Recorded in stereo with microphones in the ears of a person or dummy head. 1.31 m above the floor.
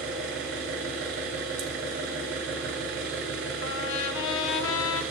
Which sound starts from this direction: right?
An engine running, at 0.0 s.